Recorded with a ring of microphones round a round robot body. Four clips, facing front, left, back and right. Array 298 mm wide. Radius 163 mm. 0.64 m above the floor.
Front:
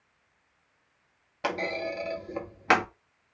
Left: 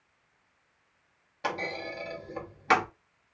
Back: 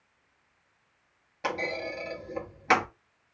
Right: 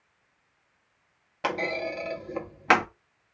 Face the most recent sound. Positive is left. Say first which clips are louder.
# right 5 dB, front 2 dB
turn(degrees=-65)